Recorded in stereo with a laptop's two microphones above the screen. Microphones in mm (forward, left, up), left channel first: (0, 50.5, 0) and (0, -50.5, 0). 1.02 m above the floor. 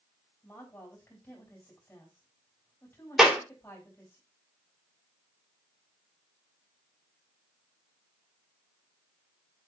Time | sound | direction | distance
0.4 | a woman speaking | 30° left (ahead or behind) | 4.5 m
3.2 | a clap | 5° right (ahead or behind) | 2.5 m